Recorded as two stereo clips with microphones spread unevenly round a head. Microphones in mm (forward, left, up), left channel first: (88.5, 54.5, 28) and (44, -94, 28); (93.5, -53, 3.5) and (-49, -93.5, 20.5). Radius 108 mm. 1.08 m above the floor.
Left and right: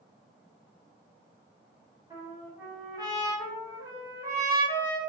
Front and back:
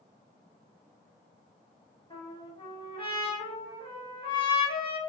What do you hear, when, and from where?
2.1 s a trumpet: 40° right, 1.8 m